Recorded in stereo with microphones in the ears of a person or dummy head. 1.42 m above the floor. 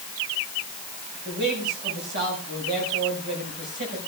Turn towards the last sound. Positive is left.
turn(degrees=-60)  # may be behind; listen again after turning